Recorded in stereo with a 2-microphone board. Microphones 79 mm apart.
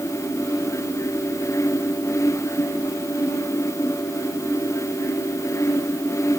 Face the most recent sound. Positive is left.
No sound to turn to.